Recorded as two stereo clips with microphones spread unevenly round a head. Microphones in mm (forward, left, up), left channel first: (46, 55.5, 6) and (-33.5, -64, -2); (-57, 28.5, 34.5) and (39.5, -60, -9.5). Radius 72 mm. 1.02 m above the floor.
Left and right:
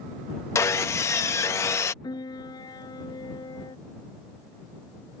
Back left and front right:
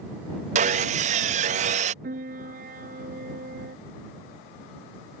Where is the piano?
5° right.